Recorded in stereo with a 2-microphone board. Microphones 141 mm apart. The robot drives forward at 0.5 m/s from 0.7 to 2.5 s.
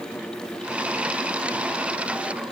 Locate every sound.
Only background noise.